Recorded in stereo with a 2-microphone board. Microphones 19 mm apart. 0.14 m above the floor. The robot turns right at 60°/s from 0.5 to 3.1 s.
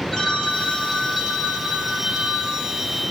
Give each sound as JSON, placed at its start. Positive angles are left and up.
{"t": 0.1, "sound": "a phone ringing", "azimuth_deg": 160, "distance_m": 1.3}